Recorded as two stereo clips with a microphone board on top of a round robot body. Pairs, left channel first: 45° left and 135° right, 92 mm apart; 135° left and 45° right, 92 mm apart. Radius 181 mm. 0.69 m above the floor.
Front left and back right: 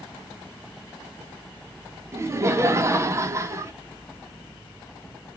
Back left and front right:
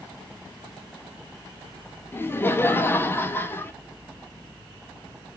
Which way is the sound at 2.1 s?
175° right.